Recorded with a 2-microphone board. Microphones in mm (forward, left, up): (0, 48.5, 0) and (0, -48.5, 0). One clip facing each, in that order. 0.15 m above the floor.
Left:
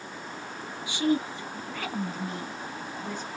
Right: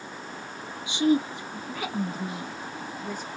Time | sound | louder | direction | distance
0.9 | a woman speaking | right 3 dB | 20° right (ahead or behind) | 1.1 m